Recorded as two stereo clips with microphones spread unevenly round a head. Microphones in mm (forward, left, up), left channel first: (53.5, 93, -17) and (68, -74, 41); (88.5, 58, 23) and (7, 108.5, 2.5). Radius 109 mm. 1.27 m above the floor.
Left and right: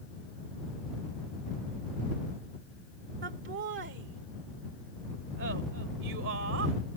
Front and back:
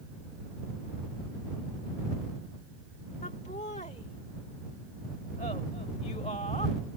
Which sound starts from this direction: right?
Laughter, at 3.2 s.